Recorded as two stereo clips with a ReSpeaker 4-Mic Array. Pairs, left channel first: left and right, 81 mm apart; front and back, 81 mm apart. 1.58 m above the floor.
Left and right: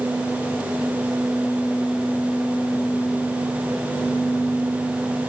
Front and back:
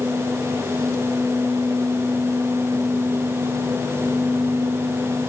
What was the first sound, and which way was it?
Only background noise.